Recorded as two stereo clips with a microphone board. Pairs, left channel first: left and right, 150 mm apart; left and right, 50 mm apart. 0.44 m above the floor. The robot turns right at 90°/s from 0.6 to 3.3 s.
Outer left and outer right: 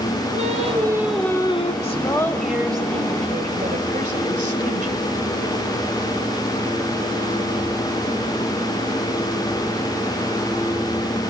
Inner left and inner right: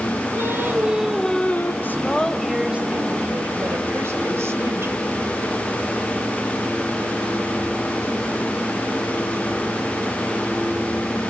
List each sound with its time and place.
0.3 s singing: 50° right, 1.9 m; by 1.7 s 50° left, 1.9 m
1.8 s a woman speaking: 125° left, 2 m; by 5.1 s 100° right, 2 m